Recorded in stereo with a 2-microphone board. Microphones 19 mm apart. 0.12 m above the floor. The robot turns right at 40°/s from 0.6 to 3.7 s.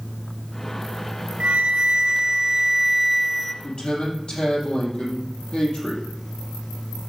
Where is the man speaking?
45° left (ahead or behind), 4.5 m; by 6.0 s 50° left (ahead or behind), 4.5 m.